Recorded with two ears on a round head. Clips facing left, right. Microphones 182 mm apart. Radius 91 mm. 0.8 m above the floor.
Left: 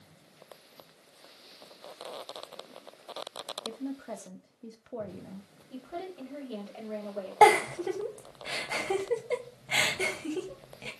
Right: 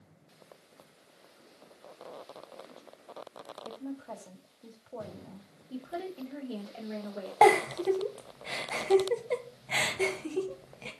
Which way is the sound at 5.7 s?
15° right (ahead or behind).